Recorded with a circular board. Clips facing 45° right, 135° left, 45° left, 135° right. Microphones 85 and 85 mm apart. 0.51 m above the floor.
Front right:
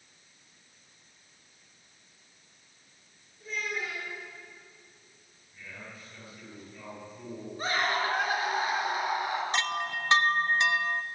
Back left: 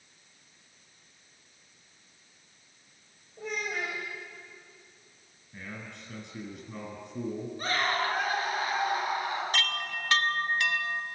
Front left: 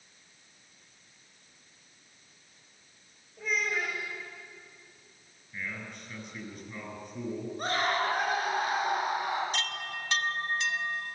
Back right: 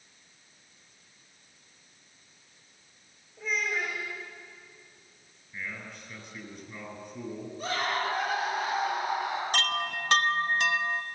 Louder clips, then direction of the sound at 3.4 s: Back left 2 dB, even; 130° left.